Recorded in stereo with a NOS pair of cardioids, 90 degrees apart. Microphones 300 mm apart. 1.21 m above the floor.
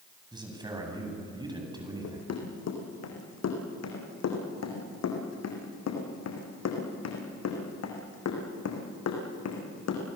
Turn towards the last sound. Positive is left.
turn(degrees=60)